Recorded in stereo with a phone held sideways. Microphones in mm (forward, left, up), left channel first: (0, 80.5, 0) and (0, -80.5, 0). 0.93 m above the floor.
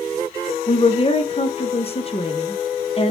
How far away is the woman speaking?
About 0.6 m.